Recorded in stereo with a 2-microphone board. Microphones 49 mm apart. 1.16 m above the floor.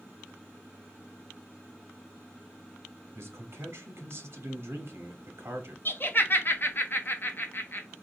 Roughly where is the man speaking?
Right.